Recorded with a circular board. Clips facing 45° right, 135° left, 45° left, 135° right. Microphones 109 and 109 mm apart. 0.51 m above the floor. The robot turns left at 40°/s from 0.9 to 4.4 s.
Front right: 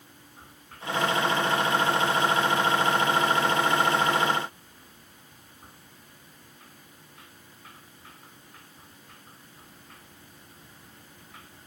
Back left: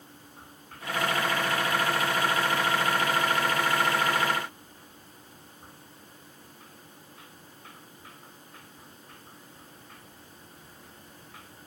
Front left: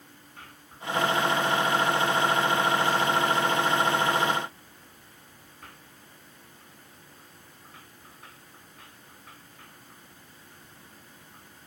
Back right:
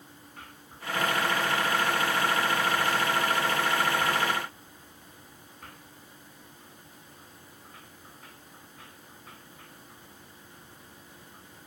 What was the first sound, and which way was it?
Only background noise.